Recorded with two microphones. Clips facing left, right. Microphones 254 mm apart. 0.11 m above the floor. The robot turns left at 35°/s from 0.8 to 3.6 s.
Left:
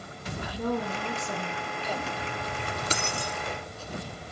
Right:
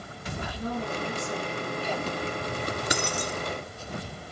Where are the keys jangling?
15° right (ahead or behind), 0.9 m; by 3.4 s 25° right (ahead or behind), 0.9 m.